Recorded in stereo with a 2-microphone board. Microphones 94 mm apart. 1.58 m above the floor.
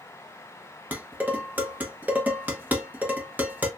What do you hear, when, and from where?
0.9 s dishes clattering: 20° right (ahead or behind), 0.9 m